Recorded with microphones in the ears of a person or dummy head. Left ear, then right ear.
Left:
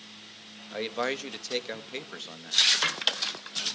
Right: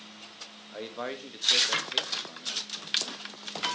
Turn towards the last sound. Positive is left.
turn(degrees=75)  # may be behind; listen again after turning